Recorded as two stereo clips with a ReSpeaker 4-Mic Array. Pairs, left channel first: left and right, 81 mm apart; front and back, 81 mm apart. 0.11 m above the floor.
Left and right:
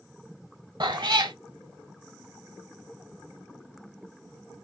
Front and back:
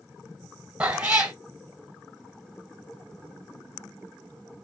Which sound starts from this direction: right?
A cat meowing, at 0.8 s.